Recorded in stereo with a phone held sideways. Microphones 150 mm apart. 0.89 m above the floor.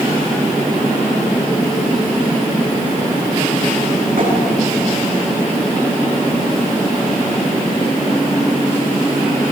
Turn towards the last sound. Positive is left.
turn(degrees=-75)  # may be behind; listen again after turning